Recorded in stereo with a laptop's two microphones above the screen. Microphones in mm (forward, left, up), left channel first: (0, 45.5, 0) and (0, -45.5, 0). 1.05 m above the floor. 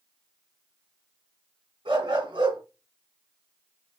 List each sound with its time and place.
1.9 s a dog barking: 75° right (ahead or behind), 3.5 m